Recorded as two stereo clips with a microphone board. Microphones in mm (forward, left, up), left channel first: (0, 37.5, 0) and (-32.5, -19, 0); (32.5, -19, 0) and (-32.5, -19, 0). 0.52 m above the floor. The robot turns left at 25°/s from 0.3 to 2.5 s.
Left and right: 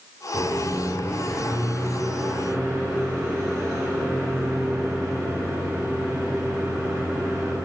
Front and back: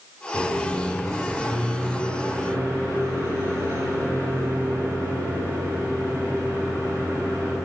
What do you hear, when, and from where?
0.3 s a microwave: 90° right, 1.5 m; by 7.6 s 145° right, 1.5 m